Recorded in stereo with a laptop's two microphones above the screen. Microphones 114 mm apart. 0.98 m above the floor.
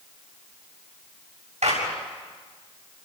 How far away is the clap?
About 7 m.